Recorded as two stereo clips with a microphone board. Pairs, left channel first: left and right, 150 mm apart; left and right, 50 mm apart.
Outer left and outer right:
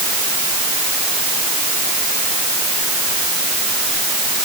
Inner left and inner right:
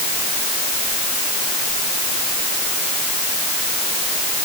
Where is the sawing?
No sawing in this recording.